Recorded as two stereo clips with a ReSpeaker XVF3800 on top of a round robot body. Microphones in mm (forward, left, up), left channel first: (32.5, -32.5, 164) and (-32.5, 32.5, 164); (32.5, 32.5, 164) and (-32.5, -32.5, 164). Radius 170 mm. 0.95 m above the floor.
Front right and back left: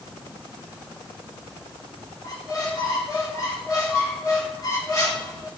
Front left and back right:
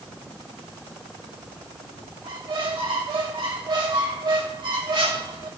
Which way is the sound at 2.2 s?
100° right.